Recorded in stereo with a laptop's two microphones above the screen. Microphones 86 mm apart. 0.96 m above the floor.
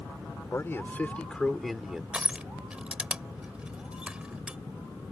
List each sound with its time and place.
0.5 s a man speaking: 30° left (ahead or behind); by 2.0 s 10° right (ahead or behind)
2.1 s crushing: 10° right (ahead or behind)